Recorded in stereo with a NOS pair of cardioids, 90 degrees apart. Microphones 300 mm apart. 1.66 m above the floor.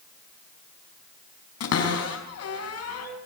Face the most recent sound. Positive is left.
turn(degrees=60)